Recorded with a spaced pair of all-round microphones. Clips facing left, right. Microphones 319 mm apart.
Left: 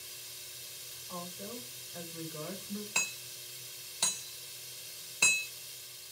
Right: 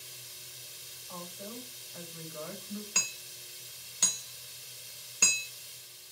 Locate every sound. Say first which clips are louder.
1.1 s a woman speaking: left 1 dB; 35° left (ahead or behind), 2.5 m
3.0 s hammering: even; 20° right (ahead or behind), 1.0 m